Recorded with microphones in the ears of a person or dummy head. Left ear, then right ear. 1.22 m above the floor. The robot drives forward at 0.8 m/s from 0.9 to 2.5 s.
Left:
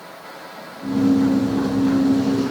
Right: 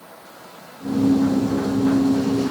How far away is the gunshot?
No gunshot in this recording.